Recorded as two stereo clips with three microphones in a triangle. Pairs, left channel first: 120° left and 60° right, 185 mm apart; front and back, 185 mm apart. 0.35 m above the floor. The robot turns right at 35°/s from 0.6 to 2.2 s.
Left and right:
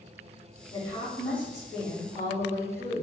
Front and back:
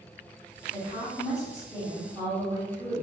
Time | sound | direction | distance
0.7 | a woman speaking | 40° left | 1.3 m